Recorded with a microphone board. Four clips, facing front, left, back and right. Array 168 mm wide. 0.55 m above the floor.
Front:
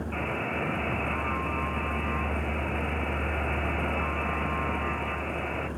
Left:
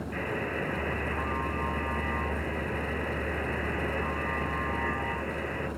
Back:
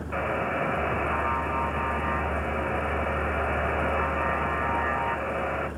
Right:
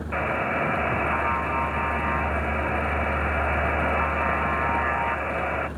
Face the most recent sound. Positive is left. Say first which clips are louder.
# right 9 dB, back 6 dB
turn(degrees=-120)